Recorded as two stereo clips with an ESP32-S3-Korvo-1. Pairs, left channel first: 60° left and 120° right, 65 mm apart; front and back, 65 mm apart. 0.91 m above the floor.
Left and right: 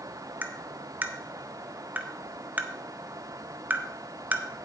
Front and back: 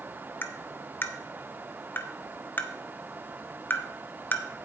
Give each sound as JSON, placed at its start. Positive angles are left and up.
{"t": 0.4, "sound": "tapping", "azimuth_deg": -55, "distance_m": 0.8}